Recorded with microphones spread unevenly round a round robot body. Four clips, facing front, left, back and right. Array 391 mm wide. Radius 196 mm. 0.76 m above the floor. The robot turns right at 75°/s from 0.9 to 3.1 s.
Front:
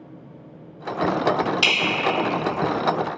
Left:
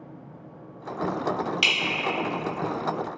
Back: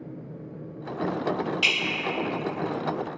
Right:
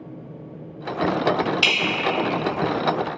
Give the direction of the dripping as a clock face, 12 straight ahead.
11 o'clock.